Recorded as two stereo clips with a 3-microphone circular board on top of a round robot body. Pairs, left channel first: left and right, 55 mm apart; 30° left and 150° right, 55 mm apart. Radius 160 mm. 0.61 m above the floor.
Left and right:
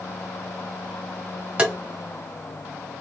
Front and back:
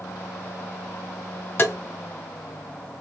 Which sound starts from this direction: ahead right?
Tapping, at 1.6 s.